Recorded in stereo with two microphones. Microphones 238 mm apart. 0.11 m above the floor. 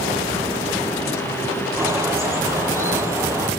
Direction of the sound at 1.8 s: 10° right (ahead or behind).